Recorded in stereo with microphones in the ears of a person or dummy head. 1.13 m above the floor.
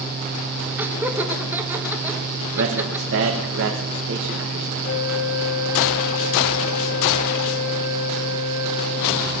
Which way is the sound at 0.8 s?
10° right (ahead or behind).